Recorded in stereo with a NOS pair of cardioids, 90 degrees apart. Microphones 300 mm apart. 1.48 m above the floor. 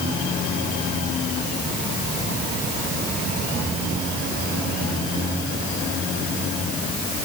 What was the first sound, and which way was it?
Only background noise.